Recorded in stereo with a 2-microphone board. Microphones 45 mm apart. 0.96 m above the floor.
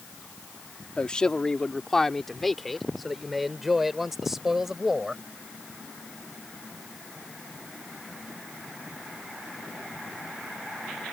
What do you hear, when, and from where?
1.0 s a man speaking: 20° left (ahead or behind); by 5.2 s 10° right (ahead or behind)